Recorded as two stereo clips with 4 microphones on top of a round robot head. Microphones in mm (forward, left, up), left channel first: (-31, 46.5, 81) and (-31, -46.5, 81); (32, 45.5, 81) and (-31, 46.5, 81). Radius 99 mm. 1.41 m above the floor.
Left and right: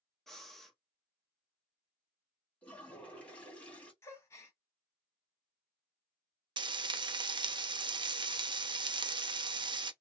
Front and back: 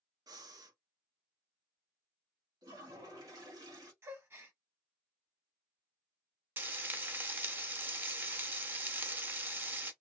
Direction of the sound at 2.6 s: 165° left.